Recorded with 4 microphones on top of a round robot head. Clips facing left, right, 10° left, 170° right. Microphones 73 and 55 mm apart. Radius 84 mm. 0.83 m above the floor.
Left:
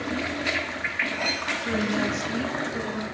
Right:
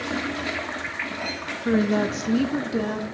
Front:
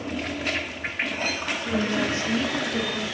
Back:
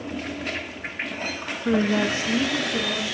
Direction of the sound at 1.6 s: 145° right.